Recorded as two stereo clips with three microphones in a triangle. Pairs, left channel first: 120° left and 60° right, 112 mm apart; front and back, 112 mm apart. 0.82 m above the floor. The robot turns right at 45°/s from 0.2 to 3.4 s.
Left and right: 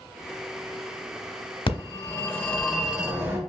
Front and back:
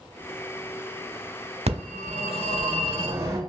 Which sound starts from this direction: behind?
A phone ringing, at 1.7 s.